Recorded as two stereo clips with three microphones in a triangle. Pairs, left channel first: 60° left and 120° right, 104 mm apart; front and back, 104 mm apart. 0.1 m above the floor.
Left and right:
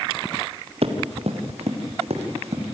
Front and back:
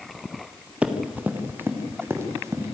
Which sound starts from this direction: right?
Running footsteps, at 0.8 s.